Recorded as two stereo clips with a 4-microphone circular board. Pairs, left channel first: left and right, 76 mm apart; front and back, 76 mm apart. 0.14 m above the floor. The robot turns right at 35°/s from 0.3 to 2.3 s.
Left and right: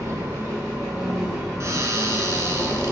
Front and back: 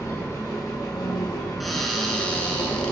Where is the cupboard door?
90° right, 1.4 m; by 2.9 s 65° right, 1.4 m.